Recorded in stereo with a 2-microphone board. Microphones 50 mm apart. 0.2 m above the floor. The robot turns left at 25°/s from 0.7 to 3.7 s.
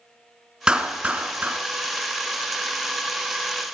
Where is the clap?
15° right (ahead or behind), 1.8 m; by 1.6 s 30° right (ahead or behind), 1.8 m.